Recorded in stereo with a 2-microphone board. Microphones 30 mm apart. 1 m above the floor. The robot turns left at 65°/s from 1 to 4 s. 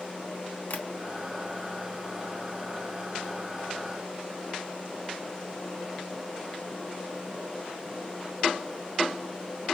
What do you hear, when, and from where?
0.7 s tapping: 60° left (ahead or behind), 1.1 m